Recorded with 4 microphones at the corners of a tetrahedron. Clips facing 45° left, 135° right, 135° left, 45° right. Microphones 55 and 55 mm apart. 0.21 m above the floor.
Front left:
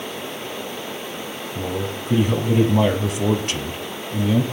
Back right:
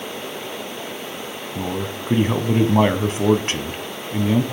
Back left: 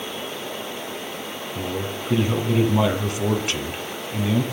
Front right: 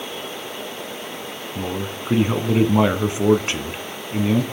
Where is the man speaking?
100° right, 1.4 m.